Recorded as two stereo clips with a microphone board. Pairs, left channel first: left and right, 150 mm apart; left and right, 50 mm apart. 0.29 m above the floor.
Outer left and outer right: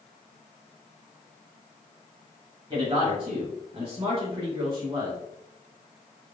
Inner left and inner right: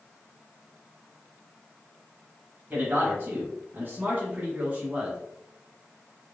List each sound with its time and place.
2.7 s a man speaking: 35° right (ahead or behind), 1.4 m; by 5.2 s 15° right (ahead or behind), 1.5 m